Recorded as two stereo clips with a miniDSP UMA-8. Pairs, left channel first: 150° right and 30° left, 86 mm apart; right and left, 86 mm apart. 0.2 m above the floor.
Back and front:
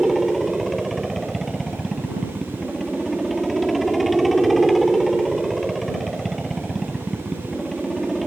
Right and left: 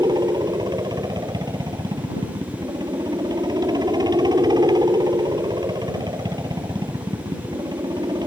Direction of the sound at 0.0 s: 120° left.